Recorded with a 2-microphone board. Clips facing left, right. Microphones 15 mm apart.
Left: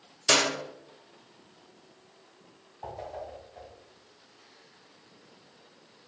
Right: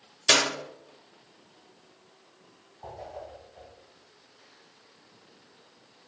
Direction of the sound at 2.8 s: 35° left (ahead or behind).